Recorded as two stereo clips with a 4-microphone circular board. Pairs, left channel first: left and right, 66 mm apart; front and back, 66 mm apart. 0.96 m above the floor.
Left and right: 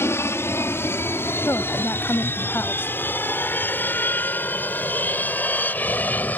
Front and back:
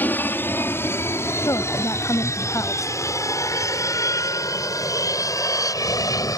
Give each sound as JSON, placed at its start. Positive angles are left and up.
{"t": 0.0, "sound": "an aircraft", "azimuth_deg": 55}
{"t": 1.4, "sound": "a woman speaking", "azimuth_deg": 35}